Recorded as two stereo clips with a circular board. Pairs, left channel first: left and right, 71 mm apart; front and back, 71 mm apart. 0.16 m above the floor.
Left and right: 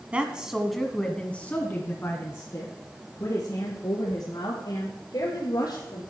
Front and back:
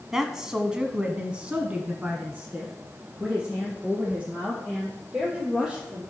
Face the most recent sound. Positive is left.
turn(degrees=105)